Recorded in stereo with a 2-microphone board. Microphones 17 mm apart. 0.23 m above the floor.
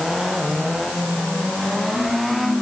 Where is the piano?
I don't hear a piano.